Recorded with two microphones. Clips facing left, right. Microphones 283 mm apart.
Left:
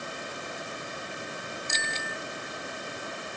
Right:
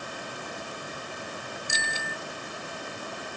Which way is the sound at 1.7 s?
10° right (ahead or behind).